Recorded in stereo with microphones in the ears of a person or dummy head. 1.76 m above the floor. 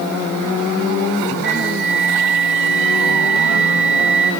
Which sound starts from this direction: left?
A flute, at 1.4 s.